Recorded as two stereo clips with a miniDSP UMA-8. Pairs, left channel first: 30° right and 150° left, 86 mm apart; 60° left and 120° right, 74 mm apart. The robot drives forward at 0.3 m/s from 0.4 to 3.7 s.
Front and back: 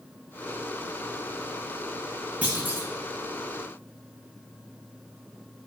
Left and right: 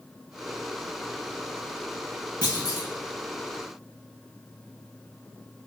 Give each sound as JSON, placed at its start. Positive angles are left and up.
{"t": 2.4, "sound": "a clunk", "azimuth_deg": 80, "distance_m": 0.8}